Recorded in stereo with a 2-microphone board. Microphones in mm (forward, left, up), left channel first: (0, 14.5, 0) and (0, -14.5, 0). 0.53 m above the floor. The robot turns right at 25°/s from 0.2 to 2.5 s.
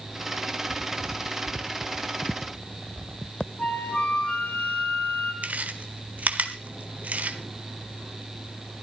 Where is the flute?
50° left (ahead or behind), 2.5 m.